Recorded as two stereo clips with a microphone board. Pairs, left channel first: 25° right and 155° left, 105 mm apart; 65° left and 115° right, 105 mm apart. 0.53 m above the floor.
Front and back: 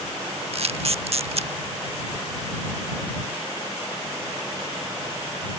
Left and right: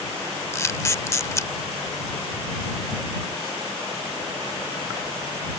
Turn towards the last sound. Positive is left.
turn(degrees=130)